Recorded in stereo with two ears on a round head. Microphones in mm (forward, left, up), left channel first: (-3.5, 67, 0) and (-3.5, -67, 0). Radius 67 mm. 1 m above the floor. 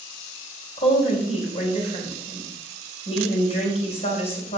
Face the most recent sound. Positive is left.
turn(degrees=45)  # may be behind; listen again after turning